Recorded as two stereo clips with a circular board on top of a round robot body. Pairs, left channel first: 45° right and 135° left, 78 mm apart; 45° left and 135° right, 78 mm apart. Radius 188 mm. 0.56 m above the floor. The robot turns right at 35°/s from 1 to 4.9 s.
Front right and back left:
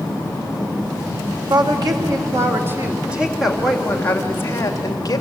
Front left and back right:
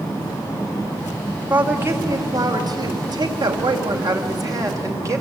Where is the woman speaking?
155° left, 2.5 m; by 5.2 s 90° right, 2.5 m.